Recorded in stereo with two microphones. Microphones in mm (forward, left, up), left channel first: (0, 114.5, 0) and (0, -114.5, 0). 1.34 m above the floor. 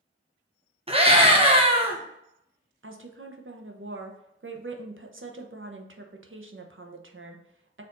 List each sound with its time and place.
0.9 s a scream: 25° right (ahead or behind), 1.1 m
2.8 s a woman speaking: 55° right (ahead or behind), 0.6 m